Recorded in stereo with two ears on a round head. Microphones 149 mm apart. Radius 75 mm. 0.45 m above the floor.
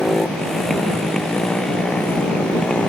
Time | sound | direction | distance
0.0 | a motorcycle | centre (ahead or behind) | ?